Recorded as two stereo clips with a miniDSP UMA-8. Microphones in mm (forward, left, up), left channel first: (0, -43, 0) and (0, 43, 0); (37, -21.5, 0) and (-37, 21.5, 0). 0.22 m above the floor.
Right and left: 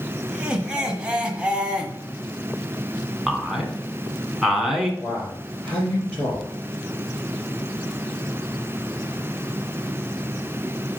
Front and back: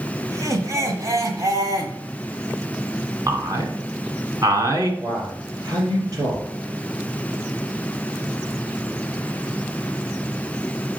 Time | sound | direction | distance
0.3 | laughter | 160° left | 1.5 m
3.3 | a man speaking | 175° left | 1.5 m
5.0 | a man speaking | 175° right | 3.5 m